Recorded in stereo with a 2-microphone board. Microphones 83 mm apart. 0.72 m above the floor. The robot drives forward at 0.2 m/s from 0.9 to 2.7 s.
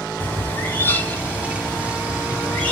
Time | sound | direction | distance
0.2 | a bird | 20° left (ahead or behind) | 0.8 m